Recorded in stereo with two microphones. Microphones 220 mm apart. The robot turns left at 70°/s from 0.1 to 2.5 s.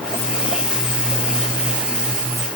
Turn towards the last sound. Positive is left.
No sound to turn to.